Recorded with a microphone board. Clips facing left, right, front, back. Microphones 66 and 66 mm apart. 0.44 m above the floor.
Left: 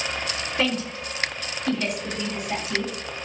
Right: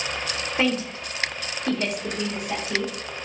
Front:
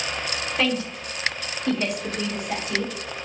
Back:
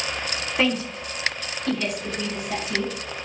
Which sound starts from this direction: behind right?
A woman speaking, at 0.6 s.